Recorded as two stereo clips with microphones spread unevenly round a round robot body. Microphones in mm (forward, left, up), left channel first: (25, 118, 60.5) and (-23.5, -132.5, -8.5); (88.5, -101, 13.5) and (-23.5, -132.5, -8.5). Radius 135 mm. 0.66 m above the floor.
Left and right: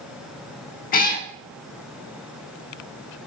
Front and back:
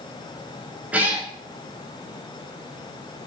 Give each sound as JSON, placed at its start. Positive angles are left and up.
{"t": 0.9, "sound": "a cat meowing", "azimuth_deg": 105, "distance_m": 0.8}